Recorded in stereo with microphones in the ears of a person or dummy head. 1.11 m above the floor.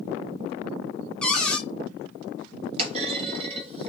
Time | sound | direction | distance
1.2 | a cupboard door | 5° left (ahead or behind) | 0.6 m
2.8 | a clunk | 35° right (ahead or behind) | 1.1 m